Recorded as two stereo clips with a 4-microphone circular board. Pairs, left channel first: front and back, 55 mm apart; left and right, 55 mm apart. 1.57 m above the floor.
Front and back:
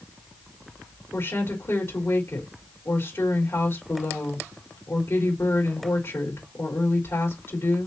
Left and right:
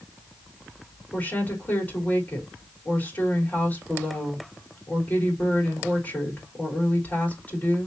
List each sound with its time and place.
1.1 s a woman speaking: 35° left, 3.5 m